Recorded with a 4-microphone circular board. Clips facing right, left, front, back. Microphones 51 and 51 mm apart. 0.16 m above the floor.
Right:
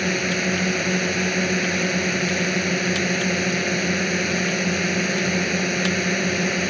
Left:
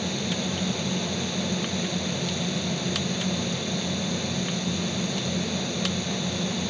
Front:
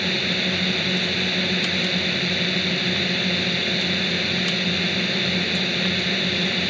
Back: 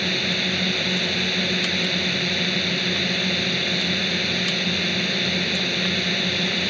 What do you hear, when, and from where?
0.0 s a drone: 90° right